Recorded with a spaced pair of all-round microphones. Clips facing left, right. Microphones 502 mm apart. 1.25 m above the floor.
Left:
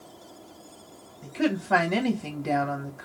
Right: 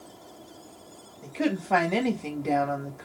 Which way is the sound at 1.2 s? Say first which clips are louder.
Left 1 dB; 35° left (ahead or behind).